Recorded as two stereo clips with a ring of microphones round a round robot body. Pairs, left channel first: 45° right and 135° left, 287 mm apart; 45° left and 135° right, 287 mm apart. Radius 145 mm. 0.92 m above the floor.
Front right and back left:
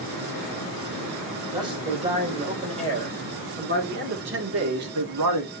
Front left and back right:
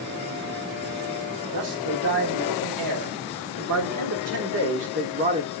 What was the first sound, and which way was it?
A man speaking, 150° right.